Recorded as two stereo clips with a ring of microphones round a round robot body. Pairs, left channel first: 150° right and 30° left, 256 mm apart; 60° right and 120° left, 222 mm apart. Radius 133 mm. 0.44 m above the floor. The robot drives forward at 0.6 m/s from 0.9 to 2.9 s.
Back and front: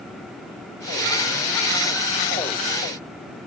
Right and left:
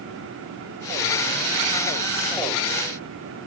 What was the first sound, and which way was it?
Only background noise.